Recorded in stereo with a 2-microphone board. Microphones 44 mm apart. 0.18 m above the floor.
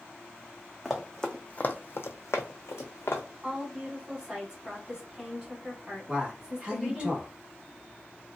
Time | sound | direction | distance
0.8 | running footsteps | 5° right (ahead or behind) | 0.7 m
3.4 | a woman speaking | 15° right (ahead or behind) | 1.1 m
6.1 | a man speaking | 20° right (ahead or behind) | 1.2 m